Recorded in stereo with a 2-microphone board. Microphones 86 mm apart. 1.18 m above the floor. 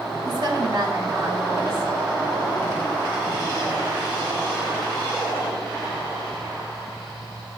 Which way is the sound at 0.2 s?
55° right (ahead or behind).